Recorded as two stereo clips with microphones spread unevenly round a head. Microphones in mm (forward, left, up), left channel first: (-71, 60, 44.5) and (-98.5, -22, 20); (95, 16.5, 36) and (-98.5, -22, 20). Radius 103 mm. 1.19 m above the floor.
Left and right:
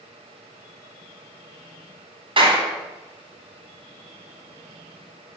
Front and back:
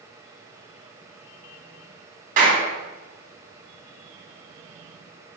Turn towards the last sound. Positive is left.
turn(degrees=-120)